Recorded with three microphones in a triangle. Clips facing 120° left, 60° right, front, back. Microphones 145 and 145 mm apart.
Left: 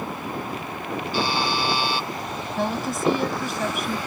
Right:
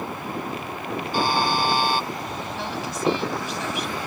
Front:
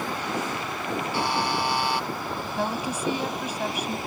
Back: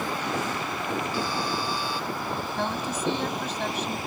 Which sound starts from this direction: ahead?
A buzzer, at 1.1 s.